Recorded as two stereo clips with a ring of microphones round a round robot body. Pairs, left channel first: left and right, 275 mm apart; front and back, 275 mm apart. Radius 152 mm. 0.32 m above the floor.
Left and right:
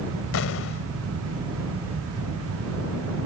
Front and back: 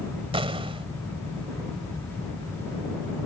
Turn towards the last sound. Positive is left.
turn(degrees=115)